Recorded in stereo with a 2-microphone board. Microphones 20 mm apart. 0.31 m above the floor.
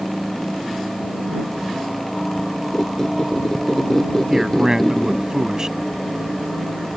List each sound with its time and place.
2.7 s a squeak: 20° left (ahead or behind)
4.3 s a man speaking: 30° right (ahead or behind)